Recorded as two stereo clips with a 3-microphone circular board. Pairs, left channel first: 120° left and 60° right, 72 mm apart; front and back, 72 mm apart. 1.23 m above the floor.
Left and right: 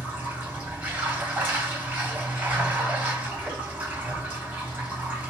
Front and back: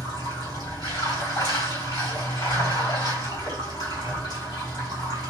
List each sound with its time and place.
0.0 s running water: 10° left, 3 m